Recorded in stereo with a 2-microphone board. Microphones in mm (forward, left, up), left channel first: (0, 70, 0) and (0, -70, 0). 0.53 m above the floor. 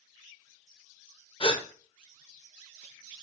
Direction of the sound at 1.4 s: 40° left (ahead or behind).